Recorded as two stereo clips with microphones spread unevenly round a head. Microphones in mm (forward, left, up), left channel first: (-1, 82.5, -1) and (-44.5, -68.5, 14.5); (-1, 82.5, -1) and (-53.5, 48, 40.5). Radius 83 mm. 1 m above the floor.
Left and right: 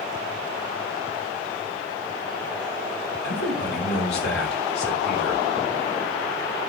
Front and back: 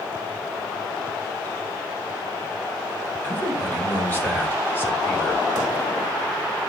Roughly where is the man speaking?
Left.